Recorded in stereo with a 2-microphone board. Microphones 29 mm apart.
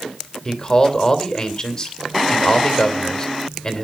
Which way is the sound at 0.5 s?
20° left (ahead or behind).